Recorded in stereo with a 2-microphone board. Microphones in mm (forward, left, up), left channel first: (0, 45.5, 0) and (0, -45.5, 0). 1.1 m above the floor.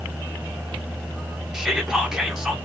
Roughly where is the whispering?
Centre.